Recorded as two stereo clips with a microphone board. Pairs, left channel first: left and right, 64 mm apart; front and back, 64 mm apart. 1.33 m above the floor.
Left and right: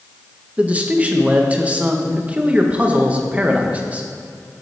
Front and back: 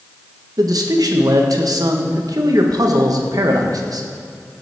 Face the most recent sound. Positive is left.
turn(degrees=-160)